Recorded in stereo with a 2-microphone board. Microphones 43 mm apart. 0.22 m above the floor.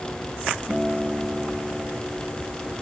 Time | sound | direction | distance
0.7 | a guitar | 10° right (ahead or behind) | 3 m